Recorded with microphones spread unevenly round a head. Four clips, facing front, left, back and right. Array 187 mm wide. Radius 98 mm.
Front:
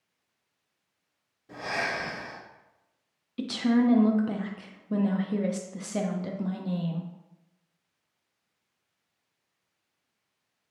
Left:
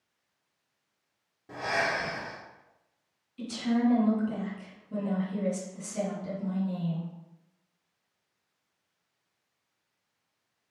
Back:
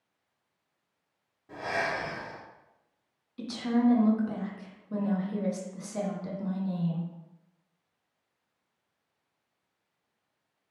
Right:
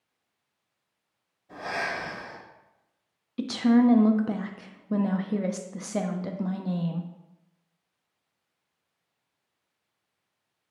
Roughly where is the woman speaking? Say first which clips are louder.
Right 7 dB, front 3 dB; ahead right.